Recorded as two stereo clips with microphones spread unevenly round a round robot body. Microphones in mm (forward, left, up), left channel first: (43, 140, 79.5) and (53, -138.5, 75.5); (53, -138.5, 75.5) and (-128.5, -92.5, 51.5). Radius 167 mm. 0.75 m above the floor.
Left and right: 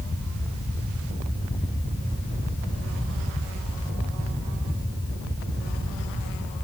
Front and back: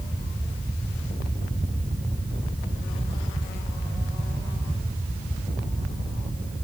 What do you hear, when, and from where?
Only background noise.